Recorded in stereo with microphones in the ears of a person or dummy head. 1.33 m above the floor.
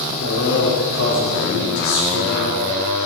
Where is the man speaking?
80° left, 4 m.